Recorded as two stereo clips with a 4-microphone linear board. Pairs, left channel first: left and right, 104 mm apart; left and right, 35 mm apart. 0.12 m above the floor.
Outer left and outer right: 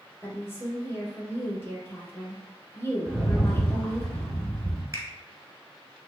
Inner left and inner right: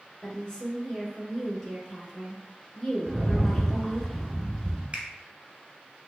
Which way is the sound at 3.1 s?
10° left (ahead or behind).